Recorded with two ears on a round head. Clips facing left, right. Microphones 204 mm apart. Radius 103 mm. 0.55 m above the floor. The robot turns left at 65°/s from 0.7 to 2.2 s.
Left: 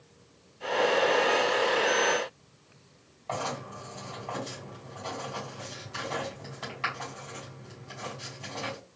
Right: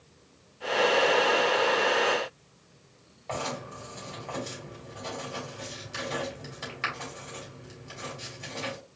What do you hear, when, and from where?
3.3 s writing: 25° right (ahead or behind), 3 m